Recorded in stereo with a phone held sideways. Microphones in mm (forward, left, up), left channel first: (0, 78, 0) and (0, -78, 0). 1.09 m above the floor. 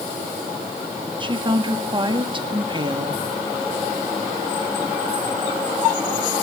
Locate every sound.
1.2 s a woman speaking: 30° right (ahead or behind), 1.7 m